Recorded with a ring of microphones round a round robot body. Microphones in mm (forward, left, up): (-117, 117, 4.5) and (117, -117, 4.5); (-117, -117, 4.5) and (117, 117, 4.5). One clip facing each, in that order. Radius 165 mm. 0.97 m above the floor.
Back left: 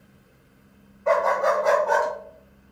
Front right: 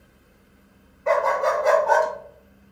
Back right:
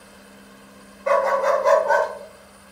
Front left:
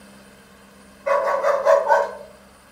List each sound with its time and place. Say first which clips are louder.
1.1 s a dog barking: even, even; 105° right, 1.0 m; by 2.1 s 75° right, 1.2 m